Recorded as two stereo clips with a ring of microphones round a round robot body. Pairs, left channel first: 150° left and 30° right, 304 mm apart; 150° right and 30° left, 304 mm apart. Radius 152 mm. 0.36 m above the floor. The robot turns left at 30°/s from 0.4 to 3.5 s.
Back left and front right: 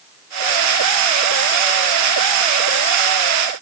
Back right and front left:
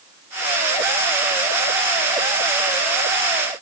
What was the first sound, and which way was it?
Only background noise.